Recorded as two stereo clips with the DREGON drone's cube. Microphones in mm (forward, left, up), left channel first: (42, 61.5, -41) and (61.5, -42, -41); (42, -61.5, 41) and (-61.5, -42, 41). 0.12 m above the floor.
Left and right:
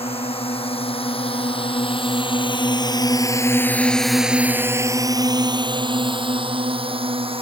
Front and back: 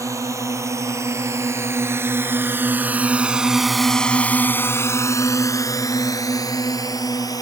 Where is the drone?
110° left; by 7.4 s 60° right.